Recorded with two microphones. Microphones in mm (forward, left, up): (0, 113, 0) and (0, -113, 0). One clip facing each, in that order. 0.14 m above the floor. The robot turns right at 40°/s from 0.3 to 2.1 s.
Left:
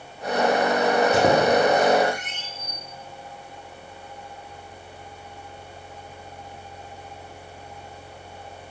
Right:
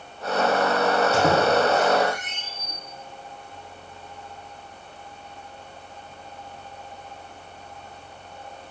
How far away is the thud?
I don't hear a thud.